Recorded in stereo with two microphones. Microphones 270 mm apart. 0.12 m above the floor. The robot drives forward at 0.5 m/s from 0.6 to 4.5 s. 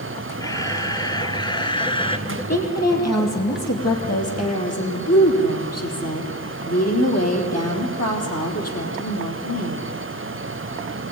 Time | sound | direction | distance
0.4 | a camera shutter | 15° left (ahead or behind) | 1.9 m
2.3 | a woman speaking | 70° left (ahead or behind) | 4 m